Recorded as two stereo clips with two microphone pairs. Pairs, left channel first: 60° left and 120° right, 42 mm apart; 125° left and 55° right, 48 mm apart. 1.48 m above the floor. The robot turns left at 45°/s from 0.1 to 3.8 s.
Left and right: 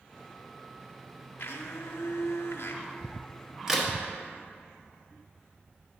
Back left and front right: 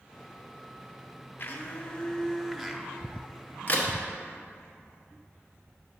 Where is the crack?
160° left, 1.1 m; by 3.9 s 155° left, 1.1 m.